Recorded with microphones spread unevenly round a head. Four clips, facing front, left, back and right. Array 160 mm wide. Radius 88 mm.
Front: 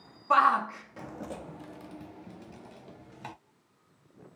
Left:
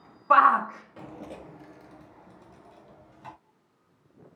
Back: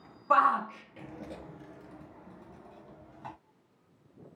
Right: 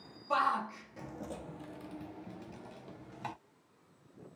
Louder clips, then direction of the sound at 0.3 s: Left 12 dB, front 2 dB; 75° left.